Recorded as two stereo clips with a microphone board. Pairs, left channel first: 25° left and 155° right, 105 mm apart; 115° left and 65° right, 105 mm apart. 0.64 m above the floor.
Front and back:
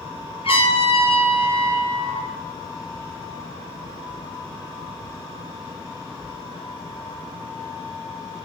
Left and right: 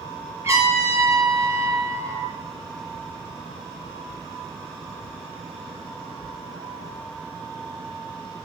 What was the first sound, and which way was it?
A trumpet, 5° right.